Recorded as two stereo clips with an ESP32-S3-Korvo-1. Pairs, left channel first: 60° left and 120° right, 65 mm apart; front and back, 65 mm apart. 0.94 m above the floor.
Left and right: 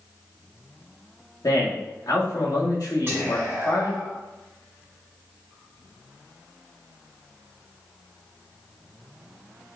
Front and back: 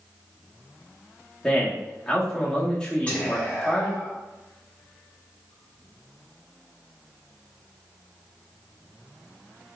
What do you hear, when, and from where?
1.4 s a man speaking: 80° left, 1.5 m
3.1 s whispering: 70° right, 2.5 m